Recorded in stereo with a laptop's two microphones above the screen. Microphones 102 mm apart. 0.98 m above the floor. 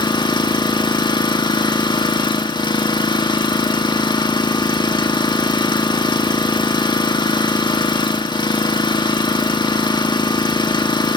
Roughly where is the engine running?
Left.